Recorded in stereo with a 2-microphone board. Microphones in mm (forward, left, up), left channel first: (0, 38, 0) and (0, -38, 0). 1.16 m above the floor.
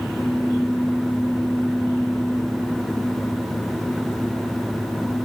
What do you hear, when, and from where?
Only background noise.